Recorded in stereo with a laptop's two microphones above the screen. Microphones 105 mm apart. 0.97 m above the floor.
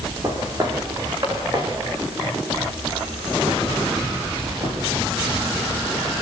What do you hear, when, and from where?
0.2 s footsteps: 35° right (ahead or behind), 5.5 m; by 4.8 s 65° right (ahead or behind), 8.5 m